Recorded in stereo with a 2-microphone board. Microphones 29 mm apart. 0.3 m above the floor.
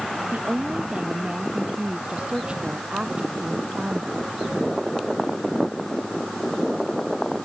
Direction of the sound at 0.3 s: 45° right (ahead or behind).